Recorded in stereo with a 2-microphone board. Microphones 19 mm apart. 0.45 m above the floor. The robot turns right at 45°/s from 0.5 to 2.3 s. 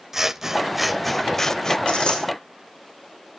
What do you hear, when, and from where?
0.1 s scissors: 20° right, 0.5 m; by 1.8 s 35° left, 0.5 m
1.9 s a dropped coin: 65° left (ahead or behind), 4.5 m; by 2.2 s 45° left (ahead or behind), 4.5 m